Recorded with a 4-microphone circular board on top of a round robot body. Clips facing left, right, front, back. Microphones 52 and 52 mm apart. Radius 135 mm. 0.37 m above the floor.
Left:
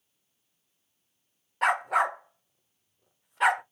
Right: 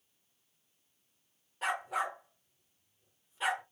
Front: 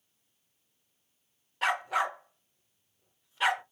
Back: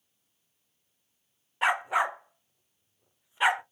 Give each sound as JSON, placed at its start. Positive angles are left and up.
{"t": 1.6, "sound": "a dog barking", "azimuth_deg": 110, "distance_m": 0.6}